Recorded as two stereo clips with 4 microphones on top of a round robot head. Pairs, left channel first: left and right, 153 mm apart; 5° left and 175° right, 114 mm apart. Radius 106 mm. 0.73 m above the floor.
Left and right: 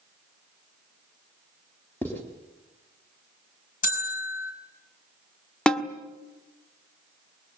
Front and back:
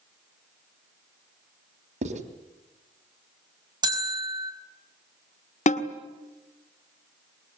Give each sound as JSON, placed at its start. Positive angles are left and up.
{"t": 2.0, "sound": "writing", "azimuth_deg": 170, "distance_m": 3.5}
{"t": 3.8, "sound": "a bell", "azimuth_deg": 135, "distance_m": 5.0}
{"t": 5.7, "sound": "a snare drum", "azimuth_deg": 5, "distance_m": 1.6}